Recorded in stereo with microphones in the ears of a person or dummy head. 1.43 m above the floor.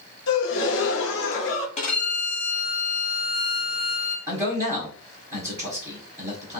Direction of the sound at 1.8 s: 40° left (ahead or behind).